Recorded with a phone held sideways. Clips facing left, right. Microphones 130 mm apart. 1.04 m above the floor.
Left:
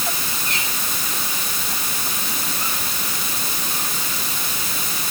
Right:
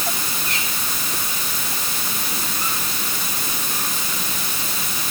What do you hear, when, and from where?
Only background noise.